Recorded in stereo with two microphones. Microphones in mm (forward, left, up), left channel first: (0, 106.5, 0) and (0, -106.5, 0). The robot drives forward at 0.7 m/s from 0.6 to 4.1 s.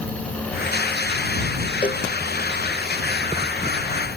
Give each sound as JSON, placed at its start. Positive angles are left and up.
{"t": 1.8, "sound": "a cowbell", "side_deg": 30}